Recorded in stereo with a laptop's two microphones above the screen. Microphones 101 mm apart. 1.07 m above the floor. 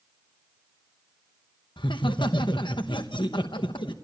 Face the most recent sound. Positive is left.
turn(degrees=50)  # may be behind; listen again after turning